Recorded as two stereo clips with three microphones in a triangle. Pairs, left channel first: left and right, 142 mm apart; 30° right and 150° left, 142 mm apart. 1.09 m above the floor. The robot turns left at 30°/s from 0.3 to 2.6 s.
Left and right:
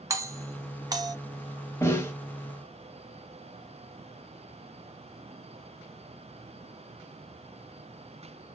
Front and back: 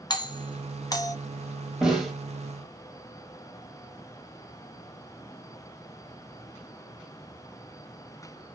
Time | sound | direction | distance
0.1 | a doorbell | 45° right | 0.6 m
1.8 | a snare drum | 70° left | 0.9 m